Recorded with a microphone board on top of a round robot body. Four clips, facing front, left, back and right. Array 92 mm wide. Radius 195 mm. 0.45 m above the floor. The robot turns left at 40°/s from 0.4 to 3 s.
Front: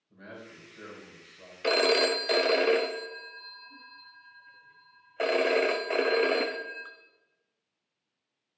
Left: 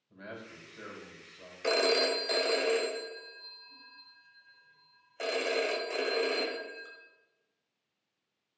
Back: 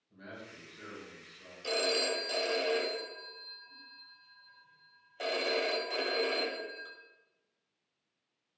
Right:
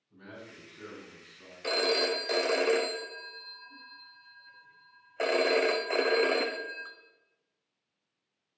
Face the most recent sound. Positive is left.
turn(degrees=-40)